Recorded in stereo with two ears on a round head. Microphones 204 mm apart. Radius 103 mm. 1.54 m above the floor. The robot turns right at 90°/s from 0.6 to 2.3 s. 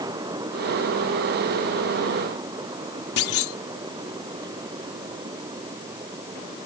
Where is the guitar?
I don't hear a guitar.